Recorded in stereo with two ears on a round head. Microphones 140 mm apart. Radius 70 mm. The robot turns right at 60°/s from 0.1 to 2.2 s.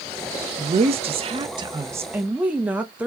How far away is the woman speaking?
About 0.6 m.